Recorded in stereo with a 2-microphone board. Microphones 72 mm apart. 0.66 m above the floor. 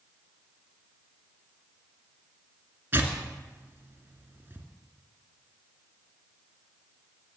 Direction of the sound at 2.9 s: 30° right (ahead or behind).